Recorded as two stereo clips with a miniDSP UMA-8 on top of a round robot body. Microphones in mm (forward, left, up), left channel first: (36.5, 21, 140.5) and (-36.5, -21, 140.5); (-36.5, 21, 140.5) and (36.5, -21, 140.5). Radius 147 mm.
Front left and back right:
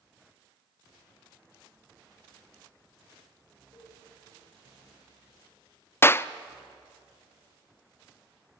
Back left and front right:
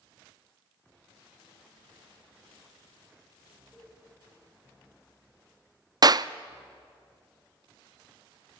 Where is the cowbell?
55° left, 3 m.